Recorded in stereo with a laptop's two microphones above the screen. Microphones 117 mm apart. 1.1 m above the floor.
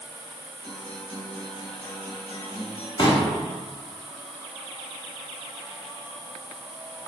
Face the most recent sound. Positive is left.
turn(degrees=40)  # may be behind; listen again after turning